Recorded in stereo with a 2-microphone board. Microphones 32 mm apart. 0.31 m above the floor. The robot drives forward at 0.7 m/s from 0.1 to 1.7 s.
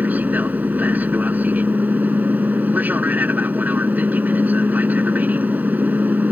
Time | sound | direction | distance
0.0 | an aircraft | 60° right (ahead or behind) | ?